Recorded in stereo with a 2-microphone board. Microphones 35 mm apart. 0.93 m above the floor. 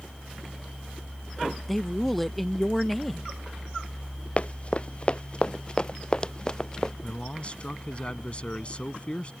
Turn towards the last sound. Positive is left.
turn(degrees=30)  # may be behind; listen again after turning